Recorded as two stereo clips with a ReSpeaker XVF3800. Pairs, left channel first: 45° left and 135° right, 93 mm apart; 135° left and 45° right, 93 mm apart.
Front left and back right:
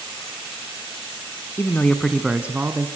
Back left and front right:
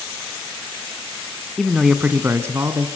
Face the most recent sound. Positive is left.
turn(degrees=-85)